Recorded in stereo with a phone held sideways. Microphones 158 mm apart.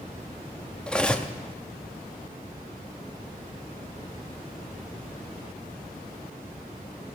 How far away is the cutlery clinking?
About 0.7 m.